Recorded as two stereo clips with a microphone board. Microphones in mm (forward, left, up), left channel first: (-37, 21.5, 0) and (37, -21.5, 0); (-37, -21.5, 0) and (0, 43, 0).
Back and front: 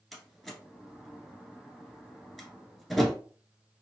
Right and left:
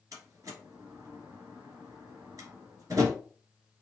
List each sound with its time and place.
0.1 s a door slam: 60° left, 1.5 m